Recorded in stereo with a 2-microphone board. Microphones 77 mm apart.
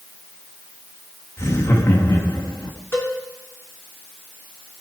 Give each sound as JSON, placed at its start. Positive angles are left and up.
{"t": 1.4, "sound": "laughter", "side_deg": 40, "distance_m": 2.0}
{"t": 2.9, "sound": "a cowbell", "side_deg": 30, "distance_m": 3.5}